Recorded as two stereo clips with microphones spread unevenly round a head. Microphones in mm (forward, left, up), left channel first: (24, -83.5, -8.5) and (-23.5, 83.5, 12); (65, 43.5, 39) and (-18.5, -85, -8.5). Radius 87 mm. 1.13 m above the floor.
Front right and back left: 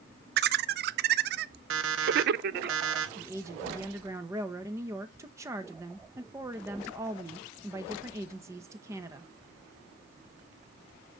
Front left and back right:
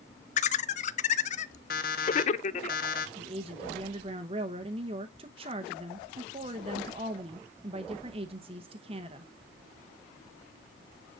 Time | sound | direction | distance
0.4 | laughter | 110° left | 0.5 m
1.7 | an alarm clock | 95° left | 1.0 m
3.2 | a woman speaking | straight behind | 0.8 m